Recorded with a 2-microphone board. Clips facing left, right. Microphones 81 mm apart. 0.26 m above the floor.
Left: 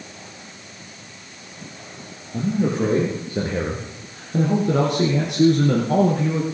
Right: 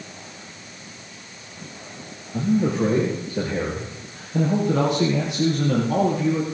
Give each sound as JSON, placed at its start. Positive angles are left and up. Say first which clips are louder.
{"t": 2.3, "sound": "a man speaking", "louder": "right 1 dB", "side_deg": 30, "distance_m": 5.5}